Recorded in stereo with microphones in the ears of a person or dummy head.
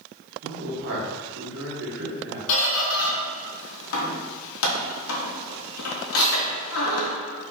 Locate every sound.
0.4 s a man speaking: 60° right (ahead or behind), 0.9 m
2.5 s a squeak: 85° left, 0.8 m